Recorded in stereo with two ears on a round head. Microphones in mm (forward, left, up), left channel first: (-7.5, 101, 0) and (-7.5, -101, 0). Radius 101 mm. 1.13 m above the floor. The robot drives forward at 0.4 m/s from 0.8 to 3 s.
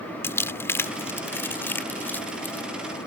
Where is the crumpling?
10° left (ahead or behind).